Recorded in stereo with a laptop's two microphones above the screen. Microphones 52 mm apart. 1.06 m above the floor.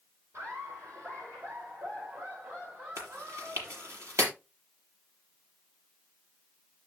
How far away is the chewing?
About 5.5 m.